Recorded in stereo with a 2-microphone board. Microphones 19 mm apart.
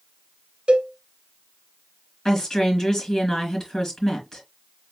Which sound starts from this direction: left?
A woman speaking, at 2.2 s.